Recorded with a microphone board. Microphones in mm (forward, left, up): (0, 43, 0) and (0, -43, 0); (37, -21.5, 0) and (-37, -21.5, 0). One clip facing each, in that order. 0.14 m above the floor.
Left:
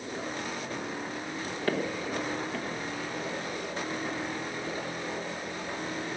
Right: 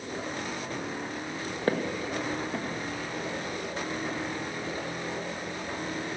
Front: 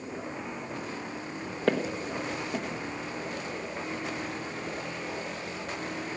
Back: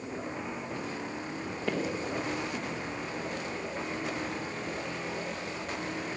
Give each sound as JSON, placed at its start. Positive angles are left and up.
{"t": 1.7, "sound": "footsteps", "azimuth_deg": -30, "distance_m": 1.7}